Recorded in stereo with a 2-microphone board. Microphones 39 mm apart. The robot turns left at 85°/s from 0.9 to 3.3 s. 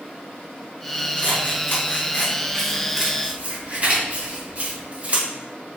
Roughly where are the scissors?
Left.